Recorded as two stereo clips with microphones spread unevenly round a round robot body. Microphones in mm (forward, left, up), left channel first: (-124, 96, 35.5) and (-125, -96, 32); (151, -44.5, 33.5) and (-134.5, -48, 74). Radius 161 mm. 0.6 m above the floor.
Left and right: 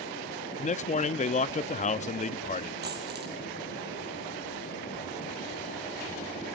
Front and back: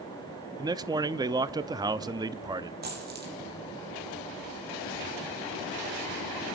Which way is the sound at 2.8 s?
125° right.